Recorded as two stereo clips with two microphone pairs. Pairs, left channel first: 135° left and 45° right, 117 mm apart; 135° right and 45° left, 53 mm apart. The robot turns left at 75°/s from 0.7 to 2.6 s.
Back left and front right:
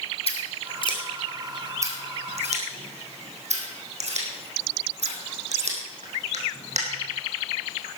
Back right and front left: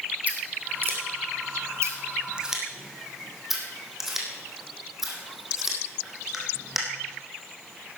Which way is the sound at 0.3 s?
105° left.